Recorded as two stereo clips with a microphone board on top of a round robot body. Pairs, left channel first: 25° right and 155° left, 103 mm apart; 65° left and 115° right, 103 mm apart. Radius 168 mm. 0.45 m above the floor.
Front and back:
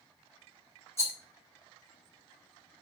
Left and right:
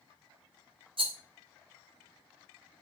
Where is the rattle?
85° right, 3 m.